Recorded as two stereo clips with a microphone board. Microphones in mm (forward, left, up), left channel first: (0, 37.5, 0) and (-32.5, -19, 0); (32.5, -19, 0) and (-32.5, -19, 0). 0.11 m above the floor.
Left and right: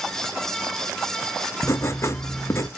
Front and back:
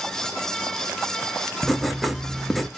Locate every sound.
1.6 s writing: 90° left, 0.5 m